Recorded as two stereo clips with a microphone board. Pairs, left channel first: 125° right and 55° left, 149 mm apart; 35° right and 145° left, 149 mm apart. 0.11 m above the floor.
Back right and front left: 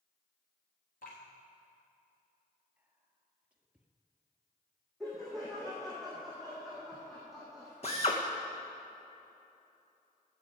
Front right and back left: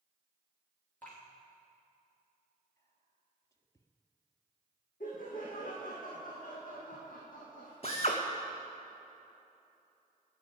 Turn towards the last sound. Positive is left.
turn(degrees=-80)